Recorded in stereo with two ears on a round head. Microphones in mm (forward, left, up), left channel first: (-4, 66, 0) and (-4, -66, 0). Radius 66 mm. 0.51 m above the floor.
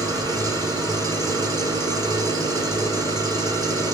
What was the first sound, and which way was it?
An engine running, 25° right (ahead or behind).